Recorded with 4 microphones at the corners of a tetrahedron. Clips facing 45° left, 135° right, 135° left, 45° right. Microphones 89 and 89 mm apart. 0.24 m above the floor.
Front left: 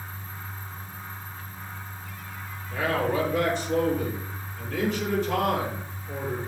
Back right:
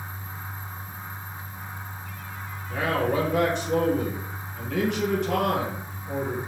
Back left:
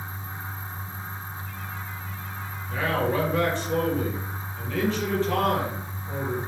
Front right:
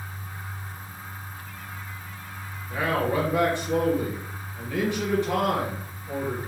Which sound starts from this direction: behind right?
A man speaking, at 2.7 s.